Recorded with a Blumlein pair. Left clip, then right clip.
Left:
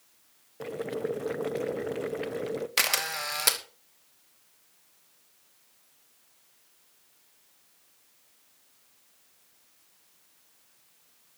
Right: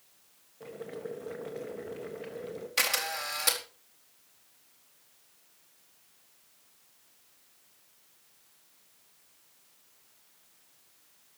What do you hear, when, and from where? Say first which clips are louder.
0.6 s boiling: left 8 dB; 45° left, 1.3 m
2.8 s a camera shutter: left 1 dB; 20° left, 2.5 m